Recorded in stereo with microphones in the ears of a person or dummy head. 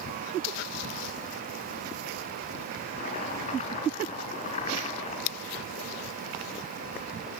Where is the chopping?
35° left (ahead or behind), 5.5 m.